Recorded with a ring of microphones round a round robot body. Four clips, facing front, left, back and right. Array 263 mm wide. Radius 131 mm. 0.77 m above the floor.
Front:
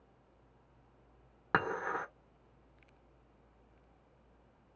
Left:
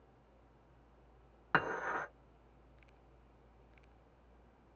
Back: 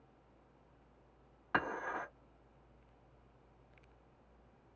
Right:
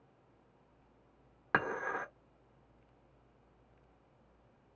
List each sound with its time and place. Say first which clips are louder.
1.5 s dishes clattering: even, front 4 dB; 20° right, 1.6 m